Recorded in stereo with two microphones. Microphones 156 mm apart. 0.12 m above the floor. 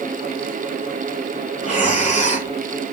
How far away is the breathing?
About 1.2 m.